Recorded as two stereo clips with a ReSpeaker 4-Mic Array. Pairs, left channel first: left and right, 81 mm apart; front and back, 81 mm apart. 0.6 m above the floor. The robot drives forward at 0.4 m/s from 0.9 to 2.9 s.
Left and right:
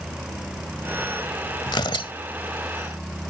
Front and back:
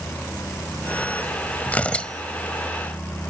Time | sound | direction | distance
1.7 | tearing paper | 70° left | ?